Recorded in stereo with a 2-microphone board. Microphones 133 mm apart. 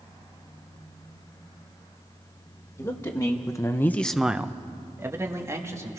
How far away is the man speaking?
About 1.6 m.